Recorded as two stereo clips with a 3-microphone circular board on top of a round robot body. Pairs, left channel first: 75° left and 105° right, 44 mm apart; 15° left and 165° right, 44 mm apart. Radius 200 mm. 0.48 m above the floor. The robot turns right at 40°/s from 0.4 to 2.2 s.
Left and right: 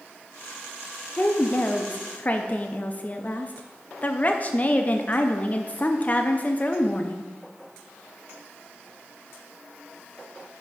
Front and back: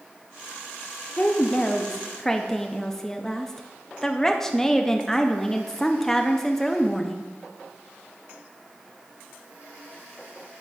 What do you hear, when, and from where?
1.2 s a woman speaking: 50° left, 0.7 m; by 7.3 s 90° left, 0.7 m